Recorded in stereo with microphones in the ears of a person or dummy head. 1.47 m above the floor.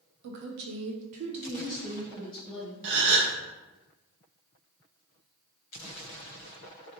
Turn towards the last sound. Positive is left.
turn(degrees=-70)  # may be behind; listen again after turning